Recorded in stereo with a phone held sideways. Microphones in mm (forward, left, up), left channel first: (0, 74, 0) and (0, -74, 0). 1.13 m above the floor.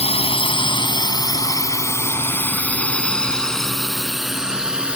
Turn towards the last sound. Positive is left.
turn(degrees=-5)  # may be behind; listen again after turning